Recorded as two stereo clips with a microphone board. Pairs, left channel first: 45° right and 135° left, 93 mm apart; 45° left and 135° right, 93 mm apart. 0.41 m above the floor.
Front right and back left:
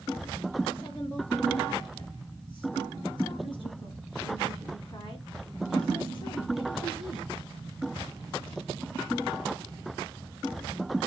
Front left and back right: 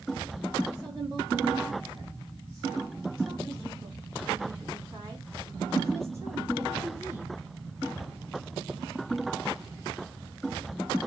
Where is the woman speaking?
85° right, 5 m; by 7.3 s 75° right, 1.8 m.